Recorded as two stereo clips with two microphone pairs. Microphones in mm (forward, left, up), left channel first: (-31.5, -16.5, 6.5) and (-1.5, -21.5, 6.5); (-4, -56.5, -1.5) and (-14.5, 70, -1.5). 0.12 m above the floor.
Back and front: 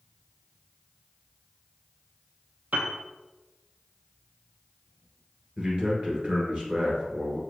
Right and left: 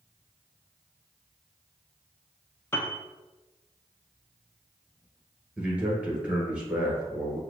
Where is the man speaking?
20° left, 1.6 m.